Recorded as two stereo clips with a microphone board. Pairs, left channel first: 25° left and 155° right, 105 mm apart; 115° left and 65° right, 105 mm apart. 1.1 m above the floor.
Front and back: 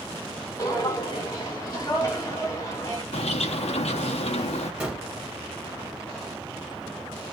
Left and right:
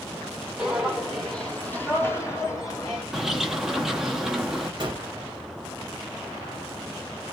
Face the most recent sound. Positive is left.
turn(degrees=-80)